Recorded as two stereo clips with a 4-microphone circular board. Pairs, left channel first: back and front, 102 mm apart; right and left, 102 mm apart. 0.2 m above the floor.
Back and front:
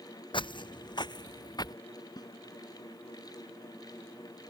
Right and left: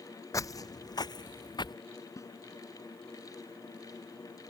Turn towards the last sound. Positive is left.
turn(degrees=-140)